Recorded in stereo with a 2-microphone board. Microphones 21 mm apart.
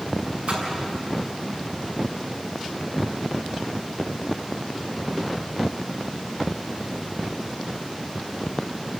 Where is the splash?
75° right (ahead or behind), 6.5 m.